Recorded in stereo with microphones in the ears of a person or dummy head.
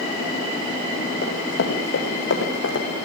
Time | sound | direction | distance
1.2 | running footsteps | 60° left (ahead or behind) | 5 m